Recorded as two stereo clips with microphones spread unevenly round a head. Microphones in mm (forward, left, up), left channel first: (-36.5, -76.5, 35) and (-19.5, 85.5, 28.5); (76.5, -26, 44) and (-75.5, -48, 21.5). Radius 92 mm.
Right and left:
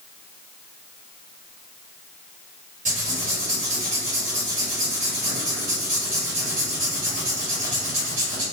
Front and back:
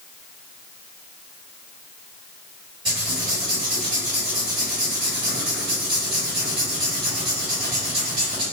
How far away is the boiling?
No boiling in this recording.